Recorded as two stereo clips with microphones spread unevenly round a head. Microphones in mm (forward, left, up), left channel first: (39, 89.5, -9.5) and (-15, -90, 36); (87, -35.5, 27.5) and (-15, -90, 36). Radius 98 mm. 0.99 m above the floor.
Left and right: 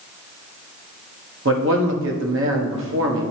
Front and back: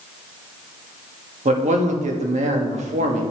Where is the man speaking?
135° right, 1.6 m.